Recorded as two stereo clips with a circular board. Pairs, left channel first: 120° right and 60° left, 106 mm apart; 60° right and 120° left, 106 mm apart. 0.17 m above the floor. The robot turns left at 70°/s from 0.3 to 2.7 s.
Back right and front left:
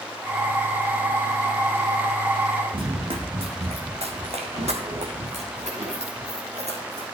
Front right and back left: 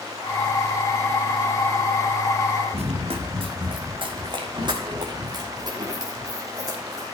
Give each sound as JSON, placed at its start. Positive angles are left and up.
{"t": 2.7, "sound": "running footsteps", "azimuth_deg": 95, "distance_m": 1.9}